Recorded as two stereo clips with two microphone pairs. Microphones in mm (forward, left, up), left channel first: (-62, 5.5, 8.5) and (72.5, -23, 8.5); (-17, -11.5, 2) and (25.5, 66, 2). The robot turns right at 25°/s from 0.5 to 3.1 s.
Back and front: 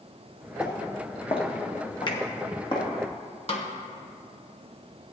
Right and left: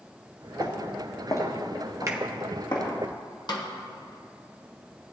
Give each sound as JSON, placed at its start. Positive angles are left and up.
{"t": 0.6, "sound": "footsteps", "azimuth_deg": -155, "distance_m": 1.5}
{"t": 2.1, "sound": "a finger snap", "azimuth_deg": 110, "distance_m": 1.1}
{"t": 3.5, "sound": "a snare drum", "azimuth_deg": -150, "distance_m": 1.3}